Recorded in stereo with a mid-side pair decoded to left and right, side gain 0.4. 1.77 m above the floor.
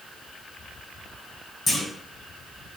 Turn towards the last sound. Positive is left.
turn(degrees=45)